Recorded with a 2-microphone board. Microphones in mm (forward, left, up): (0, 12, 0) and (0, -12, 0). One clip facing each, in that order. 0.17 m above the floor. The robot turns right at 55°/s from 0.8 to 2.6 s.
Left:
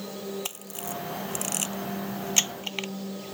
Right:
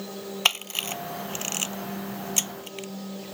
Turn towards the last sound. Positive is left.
turn(degrees=35)  # may be behind; listen again after turning